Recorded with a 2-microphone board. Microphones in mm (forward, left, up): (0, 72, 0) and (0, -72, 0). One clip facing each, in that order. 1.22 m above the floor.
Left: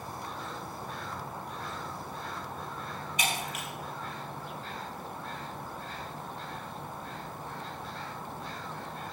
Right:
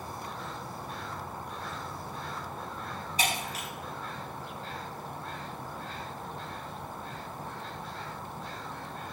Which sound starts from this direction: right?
Breaking glass, at 3.2 s.